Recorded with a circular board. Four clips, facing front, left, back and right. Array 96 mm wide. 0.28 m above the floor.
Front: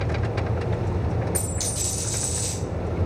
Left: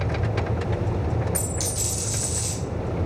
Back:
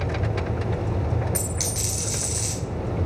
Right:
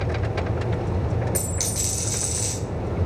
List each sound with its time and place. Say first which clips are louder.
1.4 s a dropped coin: even, even; 140° right, 1.4 m